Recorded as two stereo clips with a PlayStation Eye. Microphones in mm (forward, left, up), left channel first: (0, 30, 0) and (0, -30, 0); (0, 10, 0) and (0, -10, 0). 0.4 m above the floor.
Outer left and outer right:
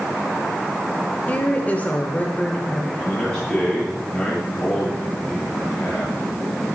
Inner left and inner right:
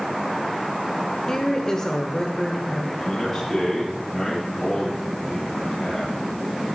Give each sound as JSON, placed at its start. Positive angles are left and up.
{"t": 1.3, "sound": "a woman speaking", "side_deg": 25, "distance_m": 1.4}
{"t": 3.0, "sound": "a man speaking", "side_deg": 20, "distance_m": 7.5}